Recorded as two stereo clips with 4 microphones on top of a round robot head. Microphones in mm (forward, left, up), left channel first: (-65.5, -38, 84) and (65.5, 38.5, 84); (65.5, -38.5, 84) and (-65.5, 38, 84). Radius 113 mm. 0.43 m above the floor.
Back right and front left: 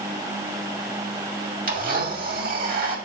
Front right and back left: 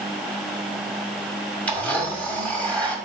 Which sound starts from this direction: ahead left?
A blender, at 1.7 s.